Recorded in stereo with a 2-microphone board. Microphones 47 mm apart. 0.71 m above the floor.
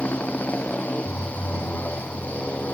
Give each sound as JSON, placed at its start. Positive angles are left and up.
{"t": 0.0, "sound": "a motorcycle", "side_deg": 30}